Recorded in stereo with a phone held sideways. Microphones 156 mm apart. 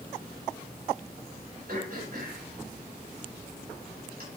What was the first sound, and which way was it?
Throat clearing, 70° right (ahead or behind).